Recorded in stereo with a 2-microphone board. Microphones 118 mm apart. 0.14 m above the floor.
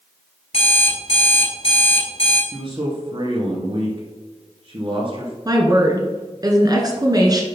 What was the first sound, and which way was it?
An alarm clock, 55° left (ahead or behind).